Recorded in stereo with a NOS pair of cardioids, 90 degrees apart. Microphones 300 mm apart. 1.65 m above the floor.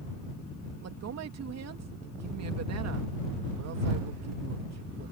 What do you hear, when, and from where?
0.8 s a woman speaking: 60° right